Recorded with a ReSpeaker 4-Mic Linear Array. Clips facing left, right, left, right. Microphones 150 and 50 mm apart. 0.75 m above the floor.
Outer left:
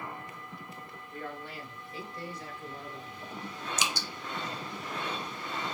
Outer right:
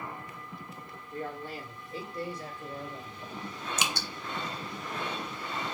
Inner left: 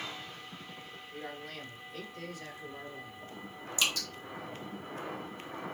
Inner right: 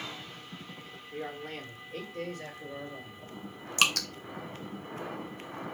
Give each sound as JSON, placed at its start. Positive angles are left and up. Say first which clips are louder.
{"t": 1.1, "sound": "a man speaking", "louder": "outer right 4 dB, inner right 5 dB", "side_deg": -40, "distance_m": 1.5}
{"t": 3.8, "sound": "dripping", "louder": "outer right 1 dB, inner right 5 dB", "side_deg": -65, "distance_m": 0.5}